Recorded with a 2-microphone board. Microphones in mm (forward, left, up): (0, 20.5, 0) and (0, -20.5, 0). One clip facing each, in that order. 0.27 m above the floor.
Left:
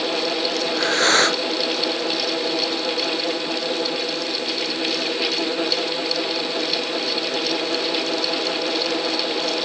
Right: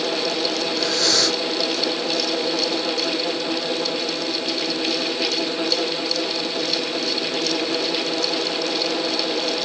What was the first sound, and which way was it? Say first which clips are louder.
Breathing: left 3 dB; 40° left (ahead or behind).